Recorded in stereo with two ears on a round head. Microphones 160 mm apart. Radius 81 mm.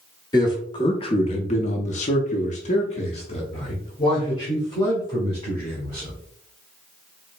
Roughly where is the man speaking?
Left.